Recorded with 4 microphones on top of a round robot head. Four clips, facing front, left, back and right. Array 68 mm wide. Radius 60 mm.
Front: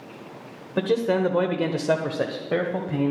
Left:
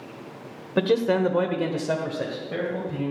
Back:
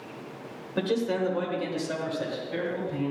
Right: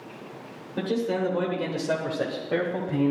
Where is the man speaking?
65° left, 1.0 m; by 3.1 s 25° right, 1.6 m.